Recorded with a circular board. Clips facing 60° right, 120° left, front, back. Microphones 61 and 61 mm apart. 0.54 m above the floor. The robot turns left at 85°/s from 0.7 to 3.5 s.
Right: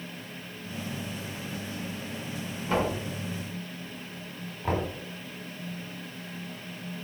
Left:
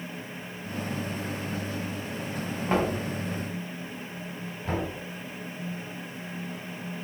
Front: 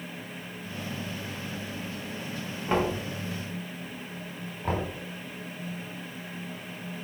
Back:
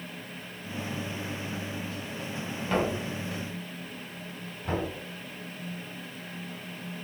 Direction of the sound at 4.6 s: 10° right.